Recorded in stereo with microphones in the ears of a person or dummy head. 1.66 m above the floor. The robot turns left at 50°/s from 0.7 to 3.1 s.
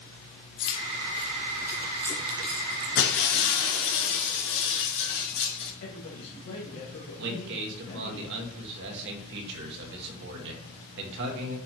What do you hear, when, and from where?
0.6 s keys jangling: 25° left (ahead or behind), 1.4 m; by 2.9 s 55° right (ahead or behind), 1.4 m
3.0 s breaking glass: 60° left (ahead or behind), 3.5 m
5.8 s a man speaking: 75° left (ahead or behind), 3 m
7.2 s a man speaking: 60° right (ahead or behind), 2 m